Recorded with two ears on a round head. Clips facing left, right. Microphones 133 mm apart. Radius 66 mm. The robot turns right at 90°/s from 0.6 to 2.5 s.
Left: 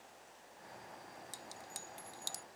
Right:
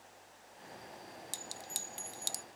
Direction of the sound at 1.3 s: 30° right (ahead or behind).